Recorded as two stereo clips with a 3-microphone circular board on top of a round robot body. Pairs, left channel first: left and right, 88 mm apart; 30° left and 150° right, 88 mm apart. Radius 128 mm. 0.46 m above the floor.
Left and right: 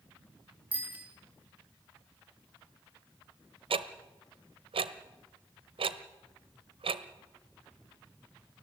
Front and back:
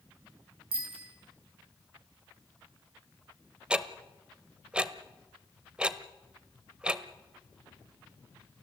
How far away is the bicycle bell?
About 6 m.